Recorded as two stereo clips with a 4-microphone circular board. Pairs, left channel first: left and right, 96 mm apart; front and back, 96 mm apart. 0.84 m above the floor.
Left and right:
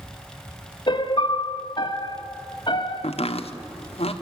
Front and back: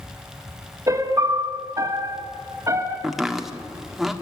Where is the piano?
125° left, 1.7 m.